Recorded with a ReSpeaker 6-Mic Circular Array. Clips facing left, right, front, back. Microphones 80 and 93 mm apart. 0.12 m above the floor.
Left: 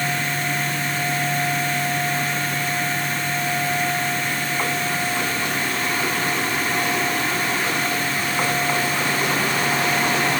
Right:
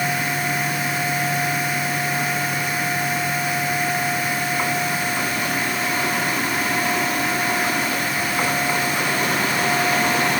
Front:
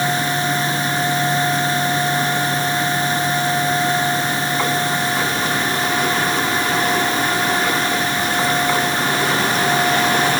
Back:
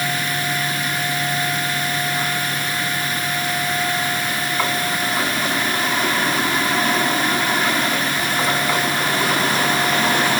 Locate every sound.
Only background noise.